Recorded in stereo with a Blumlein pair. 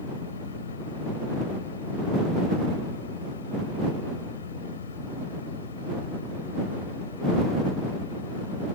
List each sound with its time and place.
0.0 s a fan: 65° left